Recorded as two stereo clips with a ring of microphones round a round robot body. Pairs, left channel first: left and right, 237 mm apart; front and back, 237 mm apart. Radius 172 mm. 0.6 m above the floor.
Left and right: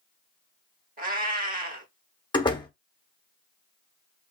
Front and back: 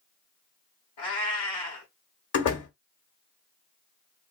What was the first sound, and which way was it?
A cat meowing, 35° right.